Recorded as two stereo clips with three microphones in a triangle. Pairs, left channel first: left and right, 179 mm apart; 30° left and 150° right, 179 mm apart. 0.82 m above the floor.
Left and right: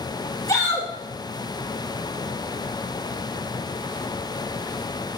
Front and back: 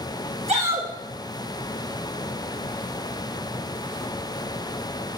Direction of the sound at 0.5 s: 160° left.